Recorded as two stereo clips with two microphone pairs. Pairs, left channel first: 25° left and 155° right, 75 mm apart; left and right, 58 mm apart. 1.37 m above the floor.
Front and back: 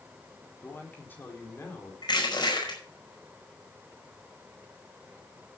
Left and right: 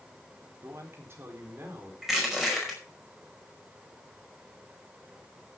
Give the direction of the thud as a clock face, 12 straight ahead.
I don't hear a thud.